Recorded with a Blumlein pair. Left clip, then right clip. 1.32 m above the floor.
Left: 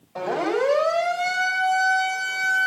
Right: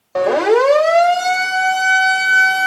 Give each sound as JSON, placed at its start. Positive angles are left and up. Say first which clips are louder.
{"t": 0.1, "sound": "a siren", "louder": "right 10 dB", "azimuth_deg": -45, "distance_m": 4.5}